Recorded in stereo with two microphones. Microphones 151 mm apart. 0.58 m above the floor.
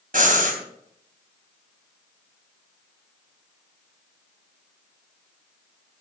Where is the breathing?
65° right (ahead or behind), 3 m.